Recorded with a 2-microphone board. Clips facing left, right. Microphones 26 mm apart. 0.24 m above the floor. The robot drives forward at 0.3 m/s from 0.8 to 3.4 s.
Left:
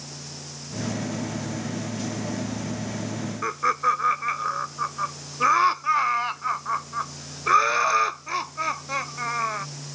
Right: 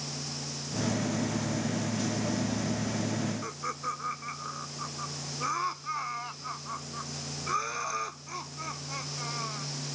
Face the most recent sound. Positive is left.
turn(degrees=55)  # may be behind; listen again after turning